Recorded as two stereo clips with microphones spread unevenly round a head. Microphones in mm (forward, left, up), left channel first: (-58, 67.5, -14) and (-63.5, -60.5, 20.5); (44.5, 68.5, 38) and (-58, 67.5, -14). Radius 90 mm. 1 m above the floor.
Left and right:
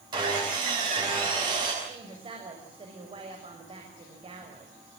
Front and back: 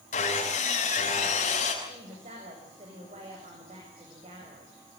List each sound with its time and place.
0.1 s sawing: 25° right, 6 m
1.8 s a woman speaking: 140° right, 6 m